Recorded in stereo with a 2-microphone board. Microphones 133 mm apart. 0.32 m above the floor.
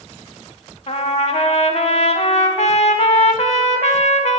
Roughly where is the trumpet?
Left.